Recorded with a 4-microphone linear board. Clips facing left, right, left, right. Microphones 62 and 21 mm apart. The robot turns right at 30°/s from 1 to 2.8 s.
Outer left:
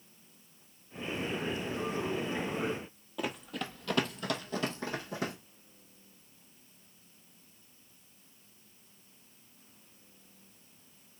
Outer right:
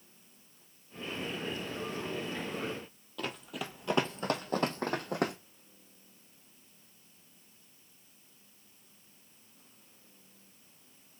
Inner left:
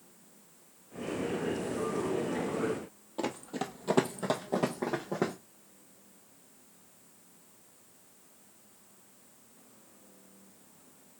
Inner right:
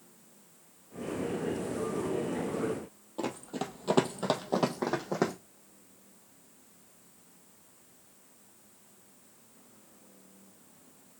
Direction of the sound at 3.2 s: 10° left (ahead or behind).